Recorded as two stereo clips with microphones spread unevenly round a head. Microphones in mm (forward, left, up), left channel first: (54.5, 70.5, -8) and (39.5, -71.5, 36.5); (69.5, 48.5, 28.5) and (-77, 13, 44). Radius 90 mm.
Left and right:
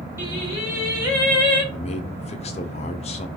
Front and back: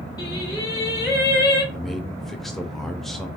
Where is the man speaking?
110° left, 0.5 m.